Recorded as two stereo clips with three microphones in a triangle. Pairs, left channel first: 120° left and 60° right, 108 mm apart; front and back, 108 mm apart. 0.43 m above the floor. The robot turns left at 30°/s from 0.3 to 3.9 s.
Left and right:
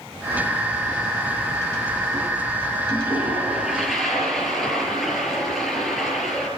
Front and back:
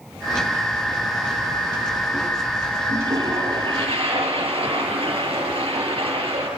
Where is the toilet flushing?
120° right, 7 m; by 6.5 s 150° right, 7 m.